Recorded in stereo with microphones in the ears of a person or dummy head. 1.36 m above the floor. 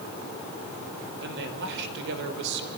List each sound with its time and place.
1.2 s a man speaking: 65° right (ahead or behind), 5.5 m